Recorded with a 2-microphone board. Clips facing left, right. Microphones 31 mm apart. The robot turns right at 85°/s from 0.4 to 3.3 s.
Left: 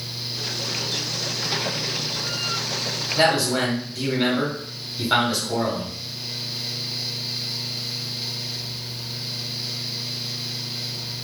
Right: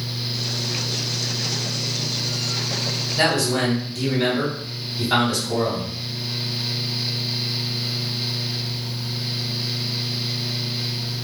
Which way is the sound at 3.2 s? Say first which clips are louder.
Left 1 dB; 20° left (ahead or behind).